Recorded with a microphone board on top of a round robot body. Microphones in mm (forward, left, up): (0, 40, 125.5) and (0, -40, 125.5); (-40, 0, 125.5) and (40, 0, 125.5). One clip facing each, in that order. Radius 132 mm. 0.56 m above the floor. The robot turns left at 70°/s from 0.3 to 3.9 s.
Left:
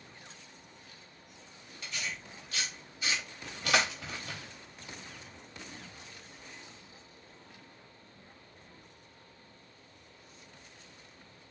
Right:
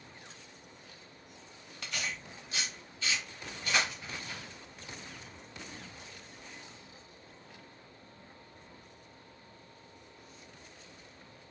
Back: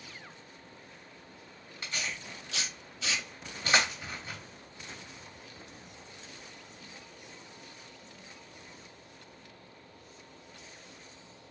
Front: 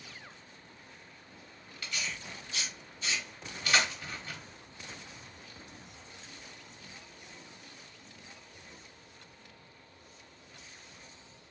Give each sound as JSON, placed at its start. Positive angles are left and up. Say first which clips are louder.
{"t": 1.8, "sound": "tearing paper", "louder": "right 1 dB, back 1 dB", "azimuth_deg": -110, "distance_m": 0.5}